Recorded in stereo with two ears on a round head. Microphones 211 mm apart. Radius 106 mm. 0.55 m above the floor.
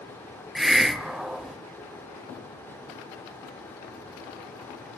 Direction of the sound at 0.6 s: Centre (ahead or behind).